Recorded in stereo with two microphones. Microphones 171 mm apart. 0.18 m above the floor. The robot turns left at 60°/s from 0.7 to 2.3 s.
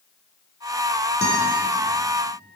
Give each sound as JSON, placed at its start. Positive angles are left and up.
{"t": 1.2, "sound": "a guitar", "side_deg": 75, "distance_m": 7.0}